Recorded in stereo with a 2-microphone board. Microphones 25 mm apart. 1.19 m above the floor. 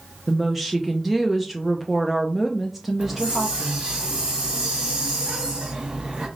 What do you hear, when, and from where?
0.3 s a woman speaking: 10° right (ahead or behind), 0.6 m
3.0 s a hiss: 35° right (ahead or behind), 2 m